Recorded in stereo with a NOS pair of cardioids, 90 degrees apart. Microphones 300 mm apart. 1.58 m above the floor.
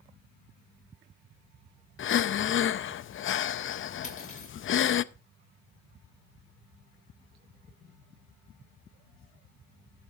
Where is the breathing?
45° left, 0.6 m.